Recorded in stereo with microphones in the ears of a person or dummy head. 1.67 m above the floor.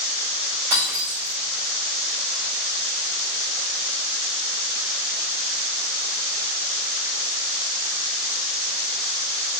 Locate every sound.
0.7 s breaking glass: 45° right (ahead or behind), 2.5 m